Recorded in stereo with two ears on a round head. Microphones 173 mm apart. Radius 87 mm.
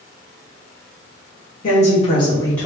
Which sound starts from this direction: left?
A woman speaking, at 1.6 s.